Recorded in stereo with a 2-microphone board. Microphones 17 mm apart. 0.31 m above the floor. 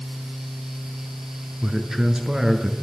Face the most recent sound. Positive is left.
turn(degrees=-35)  # may be behind; listen again after turning